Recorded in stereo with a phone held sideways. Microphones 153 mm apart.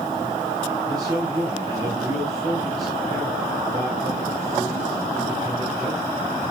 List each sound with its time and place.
0.9 s a man speaking: 25° right (ahead or behind), 5 m